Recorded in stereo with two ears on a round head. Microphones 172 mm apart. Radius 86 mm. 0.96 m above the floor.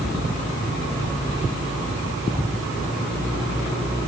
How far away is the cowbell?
I don't hear a cowbell.